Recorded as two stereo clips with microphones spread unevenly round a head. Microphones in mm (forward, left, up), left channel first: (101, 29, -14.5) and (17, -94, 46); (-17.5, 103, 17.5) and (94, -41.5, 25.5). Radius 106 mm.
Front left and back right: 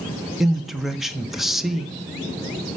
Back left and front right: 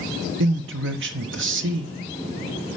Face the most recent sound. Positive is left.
turn(degrees=-35)